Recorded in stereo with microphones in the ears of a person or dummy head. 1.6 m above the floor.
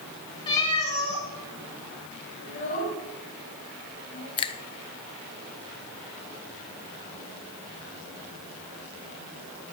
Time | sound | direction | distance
0.5 | a cat meowing | 30° left (ahead or behind) | 3.5 m
2.4 | a child speaking | 55° left (ahead or behind) | 8 m
4.4 | a finger snap | 25° left (ahead or behind) | 0.6 m